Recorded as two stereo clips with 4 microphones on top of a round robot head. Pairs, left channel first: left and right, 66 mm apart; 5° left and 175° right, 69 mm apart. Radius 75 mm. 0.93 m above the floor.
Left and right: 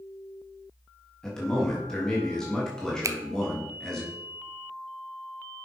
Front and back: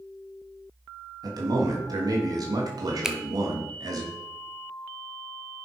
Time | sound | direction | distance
1.2 | a man speaking | 170° left | 1.8 m
3.0 | a finger snap | 95° right | 0.8 m